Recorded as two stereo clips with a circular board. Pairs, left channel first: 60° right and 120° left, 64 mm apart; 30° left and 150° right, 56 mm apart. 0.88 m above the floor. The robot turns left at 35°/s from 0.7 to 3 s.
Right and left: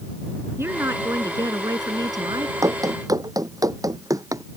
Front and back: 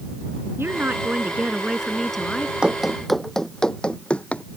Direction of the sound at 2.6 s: 140° left.